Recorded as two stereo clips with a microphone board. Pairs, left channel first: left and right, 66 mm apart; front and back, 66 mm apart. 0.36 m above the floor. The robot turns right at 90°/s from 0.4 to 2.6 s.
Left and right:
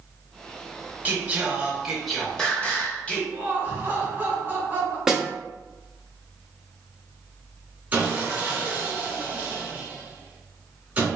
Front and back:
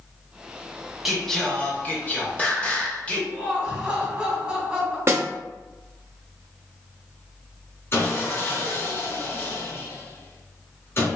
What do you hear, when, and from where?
1.1 s singing: 95° right, 0.7 m; by 3.2 s 45° left, 0.7 m
3.3 s laughter: 110° right, 1.2 m
5.1 s a snare drum: 165° right, 0.5 m
7.9 s sawing: 25° right, 1.2 m